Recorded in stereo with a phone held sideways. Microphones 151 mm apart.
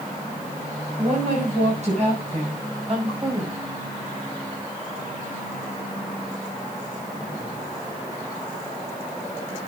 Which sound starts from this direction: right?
A woman speaking, at 1.0 s.